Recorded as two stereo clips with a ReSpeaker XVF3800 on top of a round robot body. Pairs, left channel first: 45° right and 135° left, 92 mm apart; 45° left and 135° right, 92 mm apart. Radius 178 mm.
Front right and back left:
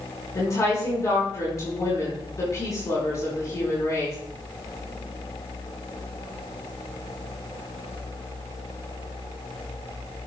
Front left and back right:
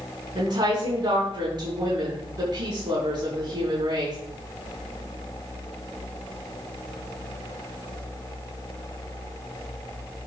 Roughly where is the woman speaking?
Right.